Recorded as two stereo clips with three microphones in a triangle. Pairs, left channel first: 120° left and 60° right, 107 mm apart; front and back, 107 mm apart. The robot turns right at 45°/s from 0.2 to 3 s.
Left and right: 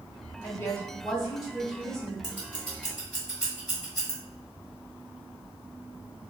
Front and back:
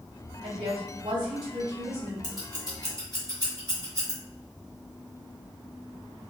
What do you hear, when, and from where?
0.4 s a woman speaking: 175° left, 1.2 m; by 2.1 s 110° right, 1.2 m
2.2 s scissors: 175° left, 1.6 m; by 4.2 s 150° right, 1.6 m